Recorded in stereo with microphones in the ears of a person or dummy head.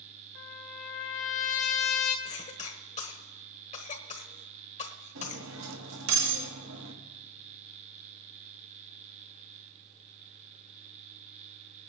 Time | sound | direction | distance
0.3 | a trumpet | 45° left (ahead or behind) | 1.8 m
2.2 | a cough | 35° left (ahead or behind) | 1.2 m
5.2 | cutlery clinking | 80° right | 1.3 m